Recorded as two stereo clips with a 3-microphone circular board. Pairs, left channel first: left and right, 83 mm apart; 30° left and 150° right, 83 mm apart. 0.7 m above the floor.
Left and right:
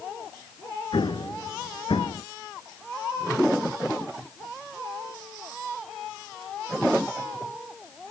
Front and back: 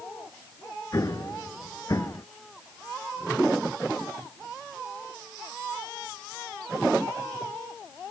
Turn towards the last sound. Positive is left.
turn(degrees=80)